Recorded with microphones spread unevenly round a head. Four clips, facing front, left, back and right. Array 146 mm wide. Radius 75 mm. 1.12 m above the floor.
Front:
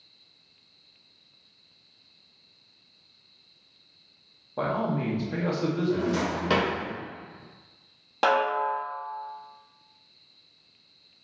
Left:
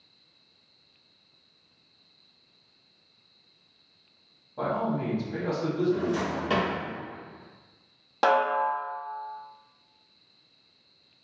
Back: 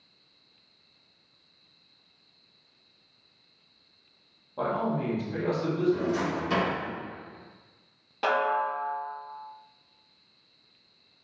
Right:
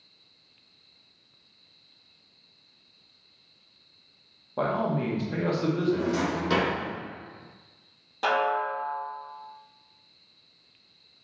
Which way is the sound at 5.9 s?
10° left.